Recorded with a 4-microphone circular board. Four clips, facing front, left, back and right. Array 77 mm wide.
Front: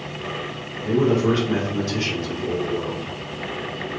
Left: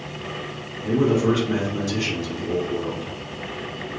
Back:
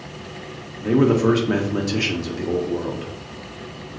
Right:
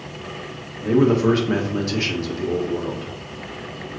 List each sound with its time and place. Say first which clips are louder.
0.8 s a man speaking: right 3 dB, back 2 dB; 150° right, 0.8 m